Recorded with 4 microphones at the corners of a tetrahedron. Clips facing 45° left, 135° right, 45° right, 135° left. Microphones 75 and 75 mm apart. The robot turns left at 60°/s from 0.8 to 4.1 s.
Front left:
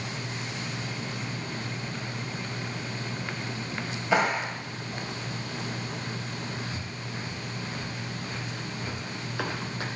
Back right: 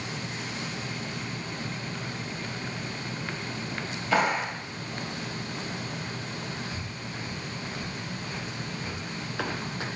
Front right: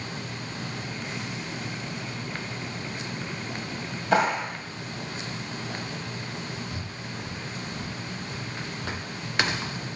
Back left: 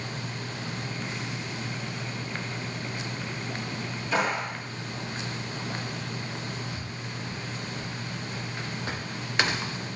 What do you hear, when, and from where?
4.1 s a clap: 25° right, 2 m
6.7 s breathing: 15° right, 3 m